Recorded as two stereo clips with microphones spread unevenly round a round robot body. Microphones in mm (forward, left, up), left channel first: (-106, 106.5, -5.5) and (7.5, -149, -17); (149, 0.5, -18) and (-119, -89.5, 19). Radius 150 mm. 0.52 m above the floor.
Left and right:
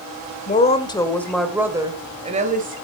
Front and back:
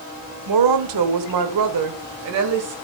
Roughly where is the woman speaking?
Behind.